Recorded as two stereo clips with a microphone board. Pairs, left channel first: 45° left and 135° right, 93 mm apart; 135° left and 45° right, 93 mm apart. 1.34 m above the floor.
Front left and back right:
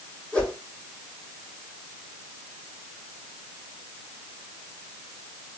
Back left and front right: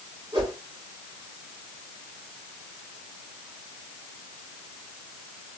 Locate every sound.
0.3 s a whoosh: 30° right, 3 m